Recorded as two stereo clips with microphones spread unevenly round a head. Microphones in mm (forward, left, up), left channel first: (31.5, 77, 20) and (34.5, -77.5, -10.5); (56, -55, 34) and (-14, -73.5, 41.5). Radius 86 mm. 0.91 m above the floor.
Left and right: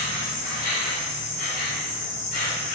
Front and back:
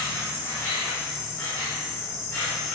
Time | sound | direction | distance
0.0 | an insect | 65° left | 1.6 m